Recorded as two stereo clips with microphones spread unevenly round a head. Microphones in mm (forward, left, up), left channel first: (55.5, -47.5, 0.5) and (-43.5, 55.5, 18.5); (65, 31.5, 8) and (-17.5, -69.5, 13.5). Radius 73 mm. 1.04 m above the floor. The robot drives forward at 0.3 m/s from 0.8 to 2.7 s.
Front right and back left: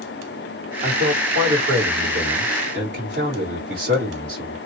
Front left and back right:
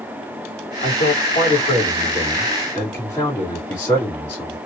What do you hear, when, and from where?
0.8 s a man speaking: 100° left, 1.8 m; by 4.6 s 115° left, 2.0 m